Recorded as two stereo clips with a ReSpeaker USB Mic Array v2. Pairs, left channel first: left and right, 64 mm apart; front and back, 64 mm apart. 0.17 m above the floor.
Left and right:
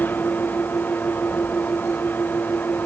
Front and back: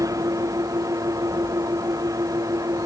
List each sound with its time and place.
0.0 s an engine running: 155° left